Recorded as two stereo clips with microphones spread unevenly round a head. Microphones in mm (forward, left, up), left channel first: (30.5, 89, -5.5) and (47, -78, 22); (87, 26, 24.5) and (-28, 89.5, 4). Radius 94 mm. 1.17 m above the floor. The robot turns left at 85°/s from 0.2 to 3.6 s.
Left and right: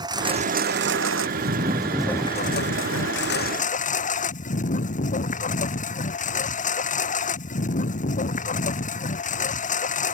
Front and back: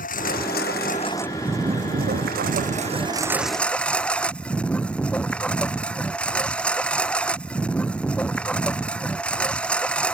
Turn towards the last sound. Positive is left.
turn(degrees=50)